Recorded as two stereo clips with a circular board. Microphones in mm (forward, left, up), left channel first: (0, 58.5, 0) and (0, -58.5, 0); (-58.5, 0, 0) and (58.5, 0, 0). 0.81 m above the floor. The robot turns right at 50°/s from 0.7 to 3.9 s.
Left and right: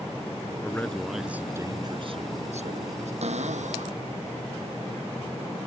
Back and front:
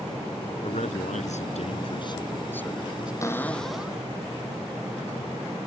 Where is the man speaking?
160° left; by 3.1 s 80° right.